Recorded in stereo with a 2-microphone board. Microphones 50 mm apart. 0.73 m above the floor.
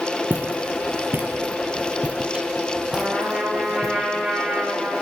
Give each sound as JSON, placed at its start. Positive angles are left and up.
{"t": 0.3, "sound": "footsteps", "side_deg": -45, "distance_m": 1.2}
{"t": 2.9, "sound": "a trumpet", "side_deg": -15, "distance_m": 5.0}